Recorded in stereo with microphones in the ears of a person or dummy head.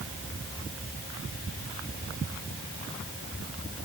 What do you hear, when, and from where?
Only background noise.